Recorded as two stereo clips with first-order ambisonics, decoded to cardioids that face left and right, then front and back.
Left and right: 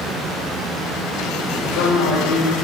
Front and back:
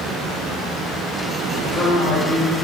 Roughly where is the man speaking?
Left.